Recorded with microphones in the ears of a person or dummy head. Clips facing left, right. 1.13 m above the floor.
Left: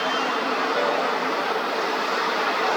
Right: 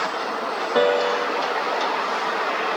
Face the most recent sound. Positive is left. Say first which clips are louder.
# right 9 dB
turn(degrees=-70)  # may be behind; listen again after turning